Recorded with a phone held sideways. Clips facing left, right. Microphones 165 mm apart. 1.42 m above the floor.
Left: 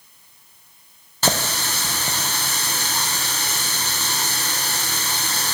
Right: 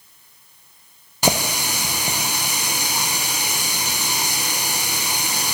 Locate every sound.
1.2 s a running tap: 15° right (ahead or behind), 0.6 m